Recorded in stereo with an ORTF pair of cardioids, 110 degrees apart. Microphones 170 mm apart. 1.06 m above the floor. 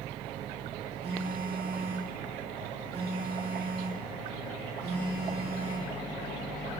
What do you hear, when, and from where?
1.0 s a phone buzzing: 35° right, 1.4 m